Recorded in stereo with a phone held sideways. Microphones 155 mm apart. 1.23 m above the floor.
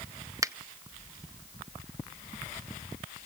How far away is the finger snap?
About 0.7 m.